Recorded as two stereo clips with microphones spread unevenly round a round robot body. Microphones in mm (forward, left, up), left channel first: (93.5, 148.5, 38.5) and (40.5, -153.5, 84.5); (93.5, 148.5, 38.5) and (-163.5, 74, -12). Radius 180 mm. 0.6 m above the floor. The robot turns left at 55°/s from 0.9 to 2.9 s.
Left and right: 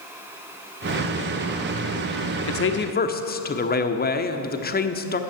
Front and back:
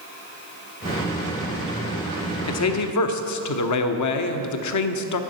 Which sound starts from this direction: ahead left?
A man speaking, at 2.5 s.